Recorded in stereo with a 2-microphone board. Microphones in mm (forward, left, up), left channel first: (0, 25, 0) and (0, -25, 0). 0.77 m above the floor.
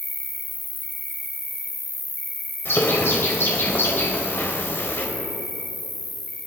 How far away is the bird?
About 3 m.